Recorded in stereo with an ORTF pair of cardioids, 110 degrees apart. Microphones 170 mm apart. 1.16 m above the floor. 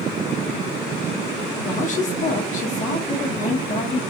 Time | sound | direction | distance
1.6 | a woman speaking | 45° left | 1.1 m